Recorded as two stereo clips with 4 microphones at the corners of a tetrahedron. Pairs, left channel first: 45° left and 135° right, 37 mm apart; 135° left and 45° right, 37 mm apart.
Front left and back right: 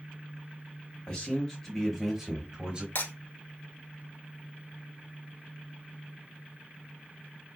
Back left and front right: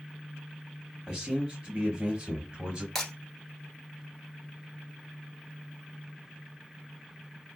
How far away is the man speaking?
About 1.1 m.